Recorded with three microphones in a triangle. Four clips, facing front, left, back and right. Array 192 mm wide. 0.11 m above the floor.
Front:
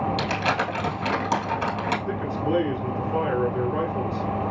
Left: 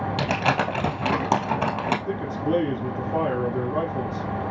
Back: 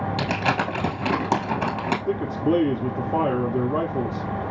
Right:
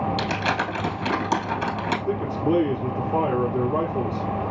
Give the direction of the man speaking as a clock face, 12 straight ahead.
5 o'clock.